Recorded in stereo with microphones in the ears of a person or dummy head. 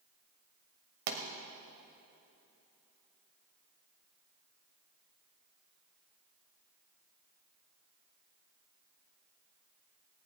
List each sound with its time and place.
1.1 s a pop: 45° right (ahead or behind), 1.4 m